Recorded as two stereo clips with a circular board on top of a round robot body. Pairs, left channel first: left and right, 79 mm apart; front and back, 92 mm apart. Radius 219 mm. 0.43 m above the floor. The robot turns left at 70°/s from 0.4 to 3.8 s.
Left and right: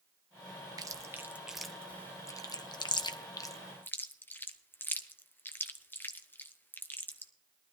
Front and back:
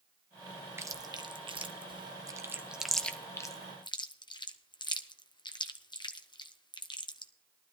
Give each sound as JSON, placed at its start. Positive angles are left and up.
{"t": 0.8, "sound": "chewing", "azimuth_deg": -120, "distance_m": 1.0}